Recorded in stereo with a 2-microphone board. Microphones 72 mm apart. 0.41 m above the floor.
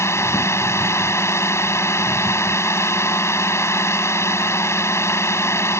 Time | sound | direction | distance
0.0 | a drone | 40° left (ahead or behind) | ?